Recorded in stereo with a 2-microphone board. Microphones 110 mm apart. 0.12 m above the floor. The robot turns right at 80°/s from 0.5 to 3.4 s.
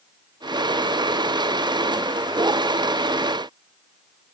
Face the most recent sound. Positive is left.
No sound to turn to.